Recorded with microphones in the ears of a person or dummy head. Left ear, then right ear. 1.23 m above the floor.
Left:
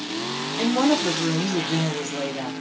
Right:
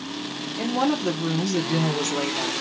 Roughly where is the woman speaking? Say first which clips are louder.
Left 3 dB; centre.